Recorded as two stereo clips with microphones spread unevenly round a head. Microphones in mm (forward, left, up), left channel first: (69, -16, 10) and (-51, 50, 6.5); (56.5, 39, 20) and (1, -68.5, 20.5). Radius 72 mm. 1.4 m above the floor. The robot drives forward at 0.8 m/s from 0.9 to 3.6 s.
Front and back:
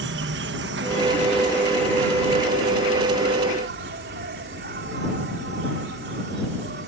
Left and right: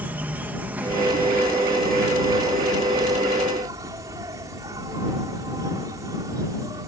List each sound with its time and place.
0.0 s an insect: 165° left; by 6.9 s 175° left